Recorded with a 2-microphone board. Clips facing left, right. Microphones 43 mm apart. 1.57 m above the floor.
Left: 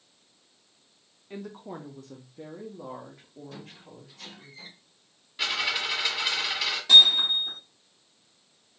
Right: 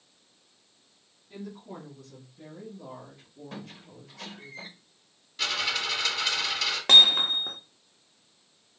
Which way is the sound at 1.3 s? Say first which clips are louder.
Left 2 dB; 50° left (ahead or behind).